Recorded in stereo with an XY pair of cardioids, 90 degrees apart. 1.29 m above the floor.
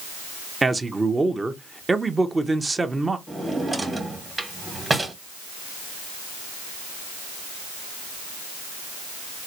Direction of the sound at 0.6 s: 25° right.